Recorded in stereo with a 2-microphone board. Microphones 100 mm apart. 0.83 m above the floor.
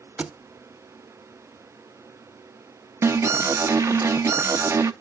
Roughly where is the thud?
Centre.